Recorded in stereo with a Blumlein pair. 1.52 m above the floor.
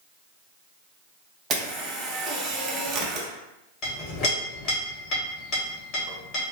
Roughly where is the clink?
Ahead left.